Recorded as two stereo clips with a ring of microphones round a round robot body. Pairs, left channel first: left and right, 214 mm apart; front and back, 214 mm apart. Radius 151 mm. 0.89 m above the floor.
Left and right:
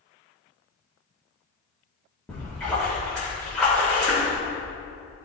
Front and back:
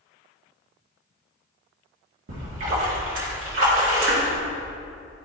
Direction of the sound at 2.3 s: 175° left.